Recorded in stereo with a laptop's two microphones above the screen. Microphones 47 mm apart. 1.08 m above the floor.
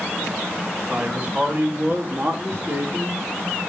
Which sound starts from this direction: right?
A man speaking, at 0.9 s.